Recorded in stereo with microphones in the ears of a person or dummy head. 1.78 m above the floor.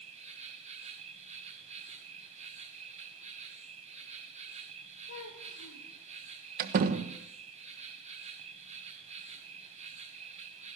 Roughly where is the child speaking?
Left.